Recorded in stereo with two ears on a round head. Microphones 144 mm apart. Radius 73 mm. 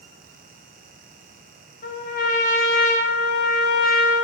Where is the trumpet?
65° left (ahead or behind), 4.5 m.